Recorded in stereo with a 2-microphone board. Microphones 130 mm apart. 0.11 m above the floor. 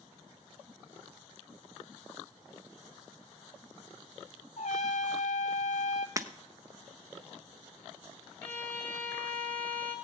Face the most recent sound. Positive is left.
turn(degrees=10)  # may be behind; listen again after turning